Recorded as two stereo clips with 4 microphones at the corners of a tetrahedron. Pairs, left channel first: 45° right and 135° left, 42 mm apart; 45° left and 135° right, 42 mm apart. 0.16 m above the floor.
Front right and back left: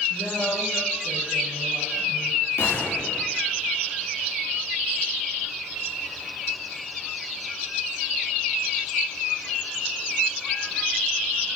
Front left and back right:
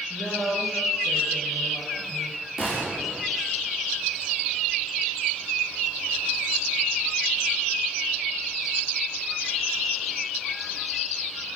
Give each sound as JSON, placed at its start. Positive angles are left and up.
{"t": 0.1, "sound": "a woman speaking", "azimuth_deg": -40, "distance_m": 3.5}
{"t": 2.6, "sound": "a gunshot", "azimuth_deg": -50, "distance_m": 4.0}